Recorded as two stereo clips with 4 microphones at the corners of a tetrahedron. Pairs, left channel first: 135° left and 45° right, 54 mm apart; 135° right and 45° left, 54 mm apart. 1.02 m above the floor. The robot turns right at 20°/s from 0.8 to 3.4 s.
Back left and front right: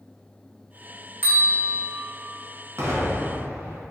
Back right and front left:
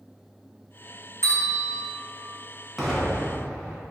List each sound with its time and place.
1.2 s a bell: 95° right, 0.9 m; by 1.9 s 80° right, 0.9 m
2.8 s an explosion: 45° right, 0.8 m; by 3.8 s 30° right, 0.8 m